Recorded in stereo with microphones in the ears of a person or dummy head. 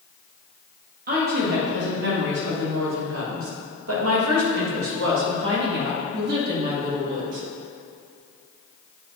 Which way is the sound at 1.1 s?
45° right (ahead or behind).